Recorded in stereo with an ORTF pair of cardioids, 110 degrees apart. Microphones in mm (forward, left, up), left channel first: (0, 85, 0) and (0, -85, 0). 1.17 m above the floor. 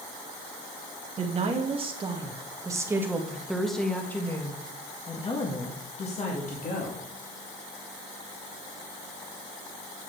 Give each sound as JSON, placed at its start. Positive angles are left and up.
{"t": 1.2, "sound": "a woman speaking", "azimuth_deg": -45, "distance_m": 1.9}